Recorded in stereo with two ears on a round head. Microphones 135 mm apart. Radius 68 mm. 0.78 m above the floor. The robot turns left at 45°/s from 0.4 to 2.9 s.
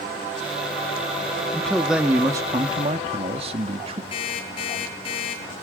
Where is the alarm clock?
35° left (ahead or behind), 8 m.